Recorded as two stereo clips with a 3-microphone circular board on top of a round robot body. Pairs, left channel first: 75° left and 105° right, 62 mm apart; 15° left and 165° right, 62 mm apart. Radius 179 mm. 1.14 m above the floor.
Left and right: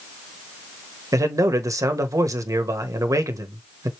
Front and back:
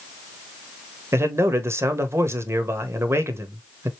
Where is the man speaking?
125° right, 1.1 m.